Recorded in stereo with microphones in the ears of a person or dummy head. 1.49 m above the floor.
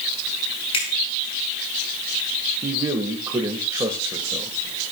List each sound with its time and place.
0.7 s a finger snap: 35° left (ahead or behind), 6.5 m
2.6 s a man speaking: 20° right (ahead or behind), 1.6 m